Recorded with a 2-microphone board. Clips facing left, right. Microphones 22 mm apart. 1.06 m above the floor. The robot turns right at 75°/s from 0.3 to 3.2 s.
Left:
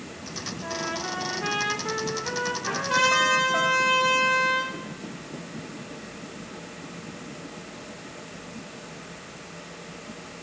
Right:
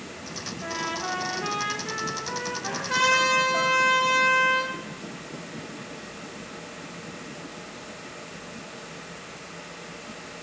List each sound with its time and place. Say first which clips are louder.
0.6 s a trumpet: right 1 dB; 70° right, 1.5 m; by 3.6 s 125° left, 1.5 m
2.6 s a trumpet: even; 5° right, 3.5 m; by 4.8 s 40° left, 3.5 m